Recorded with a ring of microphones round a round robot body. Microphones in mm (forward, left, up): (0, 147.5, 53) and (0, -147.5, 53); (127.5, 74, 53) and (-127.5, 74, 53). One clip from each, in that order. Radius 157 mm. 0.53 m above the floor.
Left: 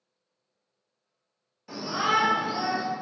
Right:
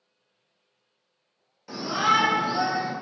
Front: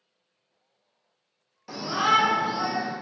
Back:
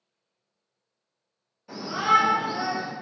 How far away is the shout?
About 1.4 m.